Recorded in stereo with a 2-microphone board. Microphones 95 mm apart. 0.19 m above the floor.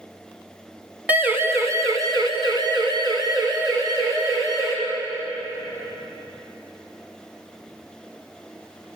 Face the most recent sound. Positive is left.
turn(degrees=-40)  # may be behind; listen again after turning